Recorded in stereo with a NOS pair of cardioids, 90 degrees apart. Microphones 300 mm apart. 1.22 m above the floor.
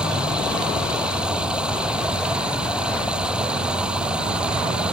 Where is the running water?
5° right.